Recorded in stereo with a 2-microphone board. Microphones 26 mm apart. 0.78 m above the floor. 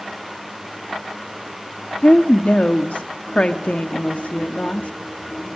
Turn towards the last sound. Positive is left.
turn(degrees=50)  # may be behind; listen again after turning